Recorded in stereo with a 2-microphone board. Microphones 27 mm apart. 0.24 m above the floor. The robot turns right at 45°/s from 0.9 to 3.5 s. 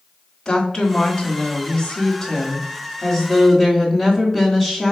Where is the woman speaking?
10° left (ahead or behind), 1.7 m; by 4.9 s 15° left (ahead or behind), 1.7 m.